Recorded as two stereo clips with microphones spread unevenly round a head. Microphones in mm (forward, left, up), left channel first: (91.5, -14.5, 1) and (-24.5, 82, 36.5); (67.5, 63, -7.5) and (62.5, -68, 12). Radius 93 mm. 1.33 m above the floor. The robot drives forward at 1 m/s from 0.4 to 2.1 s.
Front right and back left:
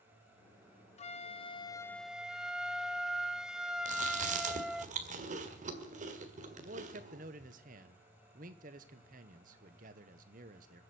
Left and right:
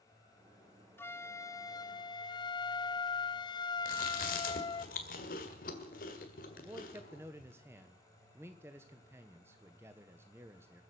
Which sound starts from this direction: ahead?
A flute, at 1.0 s.